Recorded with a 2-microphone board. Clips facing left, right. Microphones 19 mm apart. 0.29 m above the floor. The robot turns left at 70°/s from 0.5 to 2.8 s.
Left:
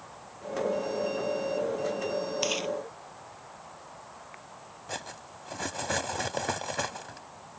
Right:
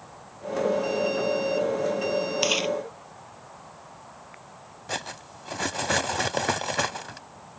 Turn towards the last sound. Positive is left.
turn(degrees=-30)  # may be behind; listen again after turning